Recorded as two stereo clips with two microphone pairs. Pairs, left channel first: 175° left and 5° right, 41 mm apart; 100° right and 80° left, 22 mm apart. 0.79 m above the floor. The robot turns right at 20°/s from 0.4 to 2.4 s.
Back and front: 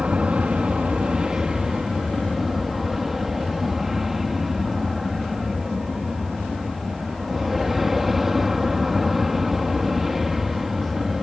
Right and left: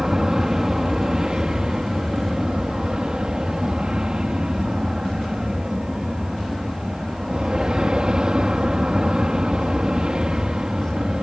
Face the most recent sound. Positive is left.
turn(degrees=75)